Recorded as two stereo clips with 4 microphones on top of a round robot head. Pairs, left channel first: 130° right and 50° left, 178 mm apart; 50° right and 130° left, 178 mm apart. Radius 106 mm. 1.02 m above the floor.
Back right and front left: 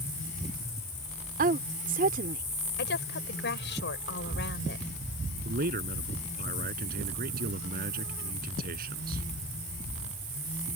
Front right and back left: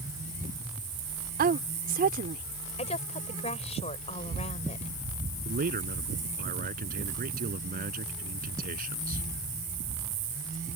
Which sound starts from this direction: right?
A woman speaking, at 2.8 s.